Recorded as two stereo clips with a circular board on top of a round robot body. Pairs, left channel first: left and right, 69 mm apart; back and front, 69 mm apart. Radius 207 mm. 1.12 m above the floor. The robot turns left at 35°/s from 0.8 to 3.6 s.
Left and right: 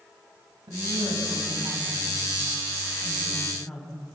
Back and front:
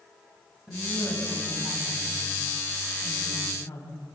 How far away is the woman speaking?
About 8.5 m.